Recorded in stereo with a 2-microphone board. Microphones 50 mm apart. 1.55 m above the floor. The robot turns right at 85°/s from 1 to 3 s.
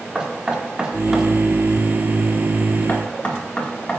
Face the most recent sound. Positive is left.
turn(degrees=25)  # may be behind; listen again after turning